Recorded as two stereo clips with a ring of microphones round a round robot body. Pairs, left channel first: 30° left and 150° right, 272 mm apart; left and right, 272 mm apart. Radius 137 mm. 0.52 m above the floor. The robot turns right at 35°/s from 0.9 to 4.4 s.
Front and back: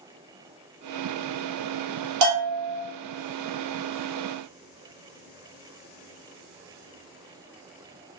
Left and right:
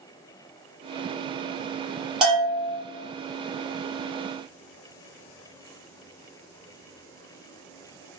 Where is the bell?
Straight behind, 1.8 m; by 2.8 s 160° right, 1.8 m.